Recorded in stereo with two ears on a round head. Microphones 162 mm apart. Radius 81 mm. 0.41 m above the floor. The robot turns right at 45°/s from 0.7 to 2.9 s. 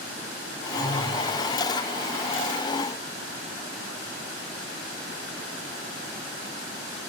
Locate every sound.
0.8 s a phone buzzing: 30° right (ahead or behind), 4 m; by 1.3 s 10° right (ahead or behind), 4 m